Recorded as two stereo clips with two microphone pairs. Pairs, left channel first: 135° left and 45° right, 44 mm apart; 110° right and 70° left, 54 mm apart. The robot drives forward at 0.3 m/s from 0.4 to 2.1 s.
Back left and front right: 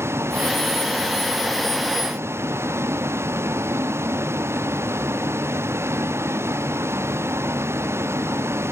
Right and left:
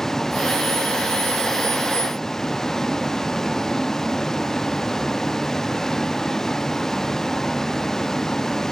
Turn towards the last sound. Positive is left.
turn(degrees=-30)